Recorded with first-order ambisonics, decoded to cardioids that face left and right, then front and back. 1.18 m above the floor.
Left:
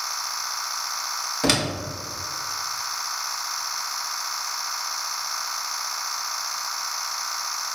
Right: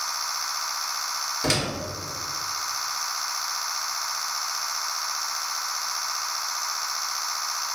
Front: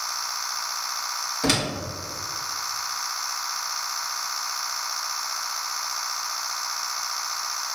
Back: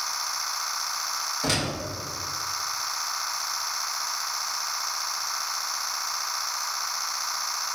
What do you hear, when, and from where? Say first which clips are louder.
1.4 s a door slam: left 4 dB, front 4 dB; 70° left, 2.0 m